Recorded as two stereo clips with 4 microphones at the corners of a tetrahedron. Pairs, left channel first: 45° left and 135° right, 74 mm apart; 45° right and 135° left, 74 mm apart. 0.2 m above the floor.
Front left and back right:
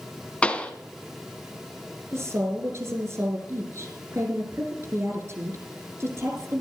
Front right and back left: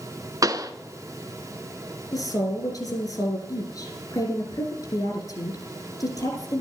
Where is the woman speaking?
80° right, 6.5 m.